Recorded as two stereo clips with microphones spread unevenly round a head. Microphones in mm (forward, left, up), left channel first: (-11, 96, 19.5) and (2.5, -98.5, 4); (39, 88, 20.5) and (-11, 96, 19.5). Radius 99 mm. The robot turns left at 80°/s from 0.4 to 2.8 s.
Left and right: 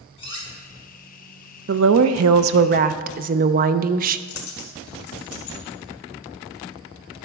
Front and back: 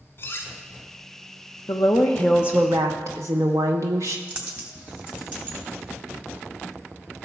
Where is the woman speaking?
45° right, 0.5 m; by 4.2 s 135° right, 0.5 m.